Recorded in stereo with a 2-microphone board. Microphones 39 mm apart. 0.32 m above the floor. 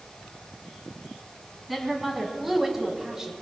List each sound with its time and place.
1.7 s a woman speaking: centre (ahead or behind), 2.5 m; by 3.3 s 15° right (ahead or behind), 1.9 m